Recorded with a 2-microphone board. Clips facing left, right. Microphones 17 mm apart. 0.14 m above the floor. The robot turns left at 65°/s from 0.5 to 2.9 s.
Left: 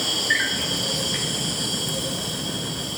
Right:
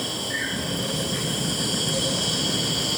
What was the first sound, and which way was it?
An insect, 70° left.